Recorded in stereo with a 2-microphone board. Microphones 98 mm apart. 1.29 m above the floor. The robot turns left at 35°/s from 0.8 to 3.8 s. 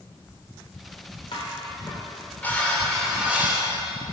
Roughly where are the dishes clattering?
Ahead left.